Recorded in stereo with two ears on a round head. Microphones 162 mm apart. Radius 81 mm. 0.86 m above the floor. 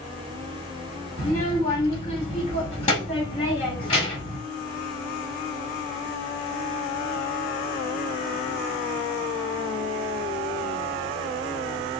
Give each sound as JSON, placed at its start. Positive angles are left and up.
{"t": 1.2, "sound": "a child speaking", "side_deg": 25, "distance_m": 1.8}